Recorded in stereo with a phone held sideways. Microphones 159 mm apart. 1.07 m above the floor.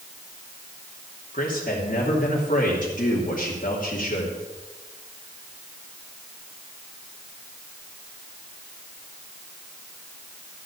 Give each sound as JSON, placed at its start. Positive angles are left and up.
{"t": 1.3, "sound": "a man speaking", "side_deg": 55, "distance_m": 2.5}